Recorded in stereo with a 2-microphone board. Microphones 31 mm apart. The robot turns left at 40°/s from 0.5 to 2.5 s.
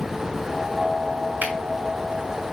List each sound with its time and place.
1.4 s a finger snap: 60° right (ahead or behind), 2.5 m; by 1.6 s 65° right (ahead or behind), 2.5 m